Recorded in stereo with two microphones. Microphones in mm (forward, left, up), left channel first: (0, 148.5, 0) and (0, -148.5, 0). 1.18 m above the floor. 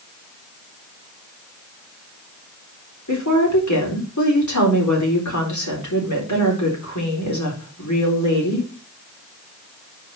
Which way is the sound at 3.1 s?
75° left (ahead or behind).